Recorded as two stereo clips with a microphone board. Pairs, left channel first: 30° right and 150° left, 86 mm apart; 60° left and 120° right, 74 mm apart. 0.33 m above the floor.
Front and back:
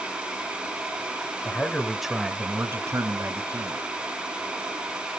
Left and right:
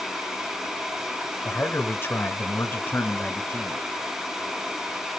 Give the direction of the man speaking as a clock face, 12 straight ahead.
11 o'clock.